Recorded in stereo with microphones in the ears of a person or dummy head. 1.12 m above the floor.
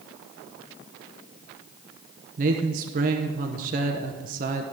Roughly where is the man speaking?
Right.